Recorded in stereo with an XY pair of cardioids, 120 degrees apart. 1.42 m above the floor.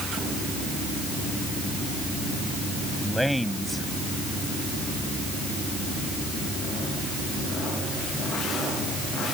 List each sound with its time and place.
3.0 s a man speaking: straight ahead